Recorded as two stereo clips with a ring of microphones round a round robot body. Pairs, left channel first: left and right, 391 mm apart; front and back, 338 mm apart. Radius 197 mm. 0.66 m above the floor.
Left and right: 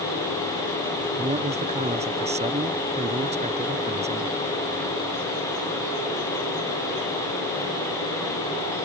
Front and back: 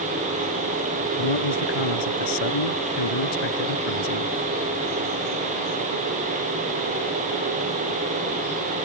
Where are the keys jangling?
I don't hear keys jangling.